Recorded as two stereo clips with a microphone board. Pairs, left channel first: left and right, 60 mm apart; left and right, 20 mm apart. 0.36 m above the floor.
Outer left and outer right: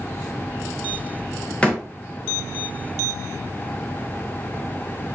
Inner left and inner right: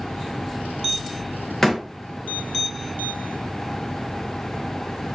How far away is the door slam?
About 0.7 m.